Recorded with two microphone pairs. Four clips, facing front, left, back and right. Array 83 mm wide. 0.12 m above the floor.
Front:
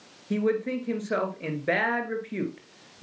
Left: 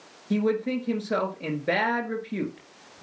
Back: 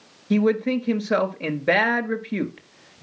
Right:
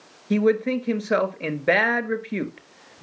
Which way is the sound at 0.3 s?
110° right.